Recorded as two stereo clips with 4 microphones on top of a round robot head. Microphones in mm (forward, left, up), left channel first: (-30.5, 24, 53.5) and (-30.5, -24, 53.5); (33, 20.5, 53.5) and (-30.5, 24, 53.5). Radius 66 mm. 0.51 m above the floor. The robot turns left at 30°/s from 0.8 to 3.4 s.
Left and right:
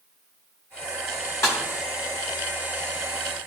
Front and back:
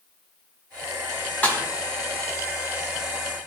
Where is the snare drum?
60° left, 4.5 m; by 1.6 s 55° left, 4.5 m.